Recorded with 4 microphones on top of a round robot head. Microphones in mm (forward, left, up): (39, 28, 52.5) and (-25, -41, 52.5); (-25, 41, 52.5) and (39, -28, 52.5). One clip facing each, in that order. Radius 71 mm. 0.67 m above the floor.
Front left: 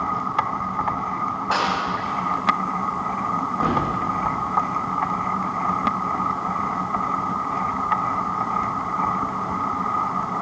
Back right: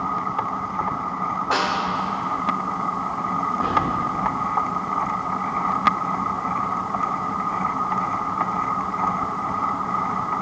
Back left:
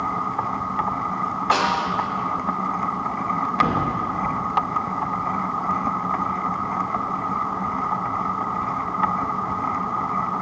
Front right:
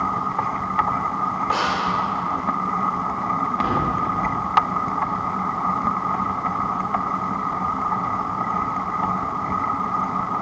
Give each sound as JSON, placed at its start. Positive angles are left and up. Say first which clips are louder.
{"t": 1.5, "sound": "a snare drum", "louder": "front left 1 dB, back left 5 dB", "azimuth_deg": 135, "distance_m": 2.5}
{"t": 3.6, "sound": "a thud", "louder": "even, back left 3 dB", "azimuth_deg": 95, "distance_m": 6.0}